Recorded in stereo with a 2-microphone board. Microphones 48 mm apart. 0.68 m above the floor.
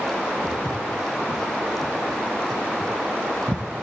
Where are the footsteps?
75° left (ahead or behind), 2.5 m; by 3.6 s 60° right (ahead or behind), 1.2 m.